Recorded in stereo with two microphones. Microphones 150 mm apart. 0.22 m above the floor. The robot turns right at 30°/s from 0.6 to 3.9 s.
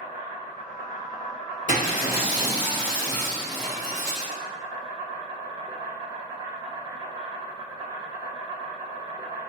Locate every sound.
0.0 s an insect: 110° left, 0.8 m; by 9.5 s 150° right, 0.8 m
1.7 s breaking glass: 120° left, 1.4 m; by 4.3 s 175° right, 1.4 m